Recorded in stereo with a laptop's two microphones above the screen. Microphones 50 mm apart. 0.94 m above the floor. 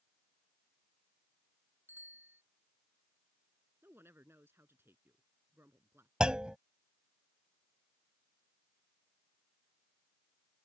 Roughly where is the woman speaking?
Right.